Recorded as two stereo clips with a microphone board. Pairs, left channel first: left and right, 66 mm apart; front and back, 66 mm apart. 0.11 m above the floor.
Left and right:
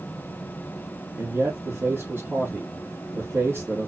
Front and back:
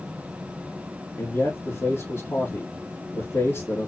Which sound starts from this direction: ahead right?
A man speaking, at 1.2 s.